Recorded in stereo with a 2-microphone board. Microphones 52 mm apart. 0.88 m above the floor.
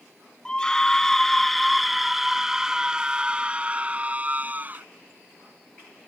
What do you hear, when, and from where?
0.5 s a scream: 15° left (ahead or behind); by 4.8 s 35° right (ahead or behind)